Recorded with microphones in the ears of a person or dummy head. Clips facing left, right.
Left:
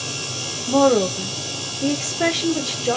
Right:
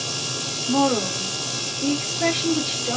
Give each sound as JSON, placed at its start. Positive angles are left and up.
{"t": 0.7, "sound": "a woman speaking", "side_deg": 70, "distance_m": 0.6}